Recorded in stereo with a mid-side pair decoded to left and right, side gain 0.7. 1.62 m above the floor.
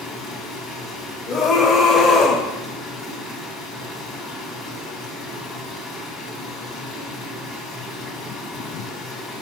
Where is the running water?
35° left, 1.8 m.